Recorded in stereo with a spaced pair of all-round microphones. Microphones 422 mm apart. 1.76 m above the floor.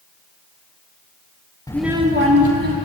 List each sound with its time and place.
1.7 s a child speaking: 10° left (ahead or behind), 0.8 m; by 2.8 s 60° right (ahead or behind), 0.9 m